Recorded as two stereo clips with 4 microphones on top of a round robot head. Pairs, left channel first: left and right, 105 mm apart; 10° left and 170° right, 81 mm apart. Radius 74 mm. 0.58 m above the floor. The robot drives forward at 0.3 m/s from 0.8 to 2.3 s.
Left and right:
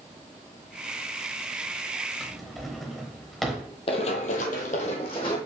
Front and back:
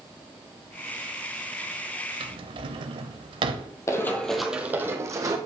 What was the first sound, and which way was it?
A drawer, straight behind.